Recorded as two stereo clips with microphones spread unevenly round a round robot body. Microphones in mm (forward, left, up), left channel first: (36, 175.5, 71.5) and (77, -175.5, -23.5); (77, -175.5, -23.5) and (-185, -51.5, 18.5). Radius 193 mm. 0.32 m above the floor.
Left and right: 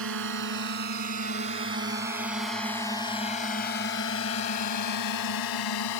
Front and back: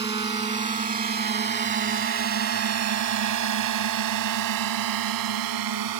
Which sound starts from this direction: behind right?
A drone, at 0.0 s.